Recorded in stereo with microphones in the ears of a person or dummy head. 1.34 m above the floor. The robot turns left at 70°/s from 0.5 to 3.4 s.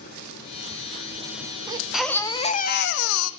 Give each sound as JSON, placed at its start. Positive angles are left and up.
{"t": 1.7, "sound": "a baby crying", "azimuth_deg": -160, "distance_m": 0.7}